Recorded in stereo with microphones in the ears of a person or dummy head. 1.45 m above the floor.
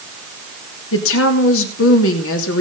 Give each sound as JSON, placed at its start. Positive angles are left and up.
{"t": 0.9, "sound": "a woman speaking", "side_deg": 80, "distance_m": 3.0}